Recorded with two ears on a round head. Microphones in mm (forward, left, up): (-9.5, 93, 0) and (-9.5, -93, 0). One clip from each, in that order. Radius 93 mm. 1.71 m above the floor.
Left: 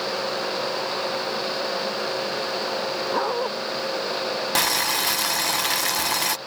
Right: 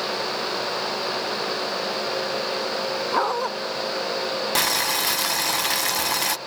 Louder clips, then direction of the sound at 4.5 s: Even; 5° right (ahead or behind).